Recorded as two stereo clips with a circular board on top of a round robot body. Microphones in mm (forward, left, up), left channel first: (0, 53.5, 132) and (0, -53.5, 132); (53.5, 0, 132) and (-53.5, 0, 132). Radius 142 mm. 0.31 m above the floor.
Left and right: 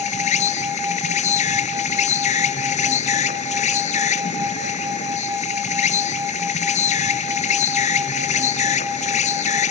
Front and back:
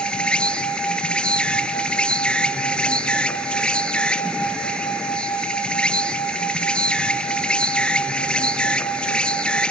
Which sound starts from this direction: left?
An insect, at 0.0 s.